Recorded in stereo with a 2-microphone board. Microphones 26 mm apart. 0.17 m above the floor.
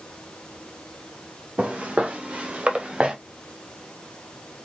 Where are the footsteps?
80° right, 2.5 m; by 3.1 s 50° right (ahead or behind), 1.6 m.